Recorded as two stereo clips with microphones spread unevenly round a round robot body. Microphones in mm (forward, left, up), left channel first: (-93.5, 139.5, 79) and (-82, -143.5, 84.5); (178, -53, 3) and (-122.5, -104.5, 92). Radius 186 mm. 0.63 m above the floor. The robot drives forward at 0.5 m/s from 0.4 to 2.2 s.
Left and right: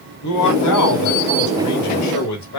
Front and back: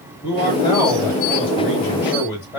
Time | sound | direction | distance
0.2 | a man speaking | 80° left | 3 m